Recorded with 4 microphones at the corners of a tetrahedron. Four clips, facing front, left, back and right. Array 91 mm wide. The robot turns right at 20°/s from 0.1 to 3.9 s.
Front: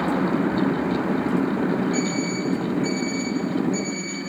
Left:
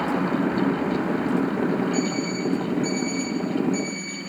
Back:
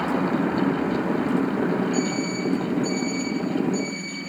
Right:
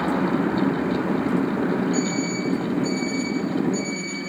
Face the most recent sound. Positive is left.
turn(degrees=50)